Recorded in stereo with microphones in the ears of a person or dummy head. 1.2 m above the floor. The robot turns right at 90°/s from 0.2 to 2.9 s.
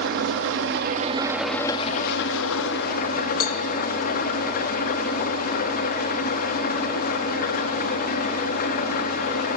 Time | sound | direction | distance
0.0 | an engine running | 110° right | 1.2 m
3.4 | a cowbell | 45° left (ahead or behind) | 0.7 m